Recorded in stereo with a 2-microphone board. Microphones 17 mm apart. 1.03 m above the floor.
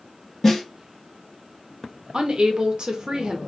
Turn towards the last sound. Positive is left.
turn(degrees=-65)  # may be behind; listen again after turning